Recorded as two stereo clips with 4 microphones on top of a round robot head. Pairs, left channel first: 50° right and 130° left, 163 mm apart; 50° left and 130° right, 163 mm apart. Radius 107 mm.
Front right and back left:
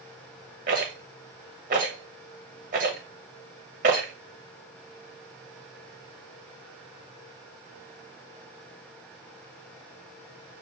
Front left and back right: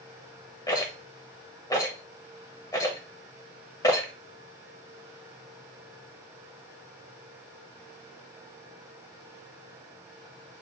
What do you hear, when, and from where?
0.7 s a rattle: 110° left, 0.8 m